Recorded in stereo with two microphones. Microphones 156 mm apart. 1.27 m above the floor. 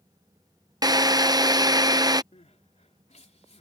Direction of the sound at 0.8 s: 25° right (ahead or behind).